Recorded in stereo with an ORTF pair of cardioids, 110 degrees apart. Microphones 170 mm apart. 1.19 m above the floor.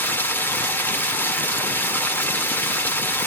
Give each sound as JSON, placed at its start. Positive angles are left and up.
{"t": 0.0, "sound": "running water", "azimuth_deg": 10, "distance_m": 1.7}